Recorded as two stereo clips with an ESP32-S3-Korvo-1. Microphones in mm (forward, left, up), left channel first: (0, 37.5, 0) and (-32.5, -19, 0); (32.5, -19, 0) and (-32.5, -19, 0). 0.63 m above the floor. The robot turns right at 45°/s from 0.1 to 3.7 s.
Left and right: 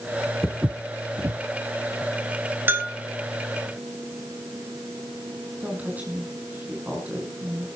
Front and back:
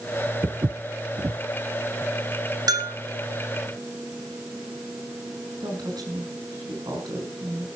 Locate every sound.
0.4 s footsteps: 155° left, 1.2 m; by 1.4 s 160° right, 1.2 m
2.7 s a bell: straight behind, 2.5 m; by 3.0 s 165° right, 2.5 m
5.6 s a woman speaking: 175° left, 5.5 m